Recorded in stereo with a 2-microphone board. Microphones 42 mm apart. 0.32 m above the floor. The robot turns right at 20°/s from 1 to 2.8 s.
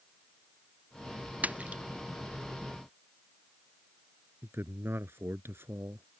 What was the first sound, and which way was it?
A splash, 40° right (ahead or behind).